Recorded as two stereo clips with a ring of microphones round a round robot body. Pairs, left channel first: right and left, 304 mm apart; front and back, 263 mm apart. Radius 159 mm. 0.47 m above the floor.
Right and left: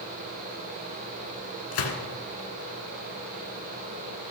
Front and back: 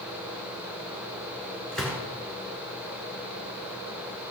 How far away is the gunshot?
About 1.5 m.